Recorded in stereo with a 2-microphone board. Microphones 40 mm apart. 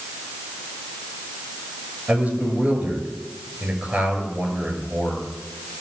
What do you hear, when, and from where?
2.1 s a man speaking: 45° right (ahead or behind), 7 m